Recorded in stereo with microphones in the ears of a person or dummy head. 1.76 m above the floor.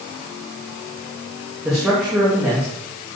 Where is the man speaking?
5° right (ahead or behind), 3.5 m.